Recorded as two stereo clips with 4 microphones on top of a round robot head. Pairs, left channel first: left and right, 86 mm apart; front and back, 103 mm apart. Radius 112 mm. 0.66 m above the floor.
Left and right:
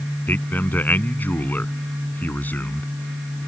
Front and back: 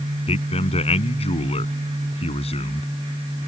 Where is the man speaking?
20° left.